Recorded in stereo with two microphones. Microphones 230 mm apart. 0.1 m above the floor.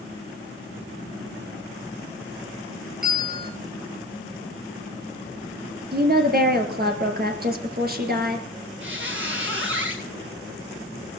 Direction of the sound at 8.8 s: 60° right (ahead or behind).